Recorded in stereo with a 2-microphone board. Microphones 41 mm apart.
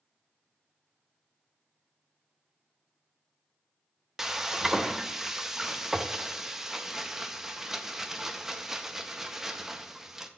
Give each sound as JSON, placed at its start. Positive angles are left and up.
{"t": 4.2, "sound": "frying", "side_deg": -10, "distance_m": 0.5}